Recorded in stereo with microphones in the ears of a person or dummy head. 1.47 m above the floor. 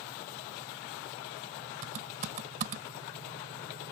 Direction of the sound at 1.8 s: 45° right (ahead or behind).